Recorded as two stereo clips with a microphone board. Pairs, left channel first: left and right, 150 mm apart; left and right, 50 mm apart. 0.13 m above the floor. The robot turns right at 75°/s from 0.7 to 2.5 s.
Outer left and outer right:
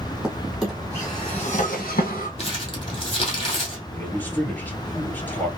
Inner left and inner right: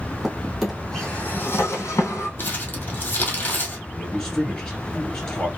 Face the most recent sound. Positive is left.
turn(degrees=10)  # may be behind; listen again after turning